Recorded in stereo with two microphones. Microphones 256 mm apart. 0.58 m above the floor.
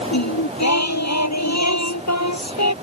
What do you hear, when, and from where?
0.1 s singing: 85° left